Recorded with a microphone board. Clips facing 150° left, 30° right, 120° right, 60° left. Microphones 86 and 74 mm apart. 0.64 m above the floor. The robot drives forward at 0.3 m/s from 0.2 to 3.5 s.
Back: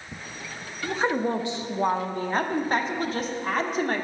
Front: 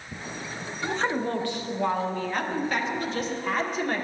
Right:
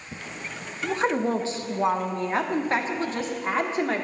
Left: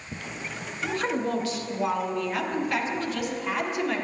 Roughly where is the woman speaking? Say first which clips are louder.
Back 2 dB, right 3 dB; behind right.